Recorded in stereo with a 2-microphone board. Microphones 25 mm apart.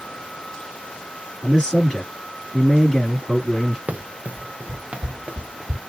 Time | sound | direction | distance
1.4 | a man speaking | 30° left (ahead or behind) | 2.5 m
3.9 | running footsteps | 85° right | 1.1 m